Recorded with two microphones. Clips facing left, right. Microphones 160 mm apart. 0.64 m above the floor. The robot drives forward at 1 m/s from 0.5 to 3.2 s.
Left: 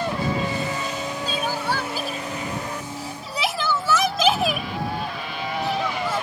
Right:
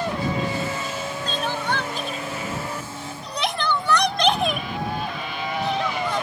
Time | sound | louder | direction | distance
1.3 | crying | even | 10° left (ahead or behind) | ?